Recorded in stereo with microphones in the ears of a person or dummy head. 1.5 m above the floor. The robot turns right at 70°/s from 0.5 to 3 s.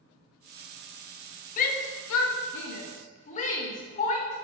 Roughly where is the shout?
Left.